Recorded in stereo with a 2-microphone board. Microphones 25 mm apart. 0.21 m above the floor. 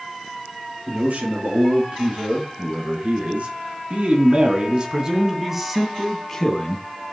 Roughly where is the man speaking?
Right.